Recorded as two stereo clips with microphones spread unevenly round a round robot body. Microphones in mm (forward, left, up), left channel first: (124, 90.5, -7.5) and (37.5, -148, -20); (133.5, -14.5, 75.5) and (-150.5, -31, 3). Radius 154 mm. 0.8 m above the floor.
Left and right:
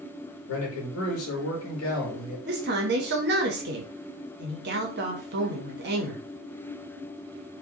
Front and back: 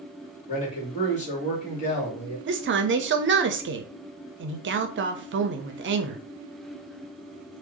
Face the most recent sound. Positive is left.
turn(degrees=-155)